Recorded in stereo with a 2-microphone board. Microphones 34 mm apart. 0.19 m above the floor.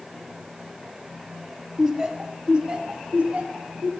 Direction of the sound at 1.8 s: 15° right (ahead or behind).